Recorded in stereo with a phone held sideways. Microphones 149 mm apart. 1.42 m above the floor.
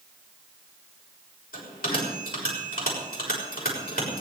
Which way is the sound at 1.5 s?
85° left.